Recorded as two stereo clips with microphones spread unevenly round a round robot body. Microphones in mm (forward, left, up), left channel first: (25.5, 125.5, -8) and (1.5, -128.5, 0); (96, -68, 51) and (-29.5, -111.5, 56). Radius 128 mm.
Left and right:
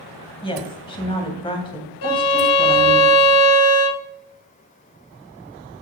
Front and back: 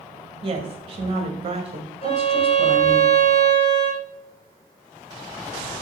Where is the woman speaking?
150° left, 2 m.